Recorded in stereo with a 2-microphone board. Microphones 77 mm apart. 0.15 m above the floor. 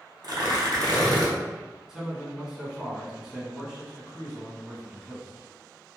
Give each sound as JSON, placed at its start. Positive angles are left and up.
{"t": 0.2, "sound": "tearing paper", "side_deg": -60, "distance_m": 0.9}
{"t": 1.9, "sound": "a man speaking", "side_deg": -5, "distance_m": 1.1}